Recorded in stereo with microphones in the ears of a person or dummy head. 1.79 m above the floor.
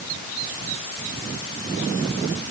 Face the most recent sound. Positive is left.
No sound to turn to.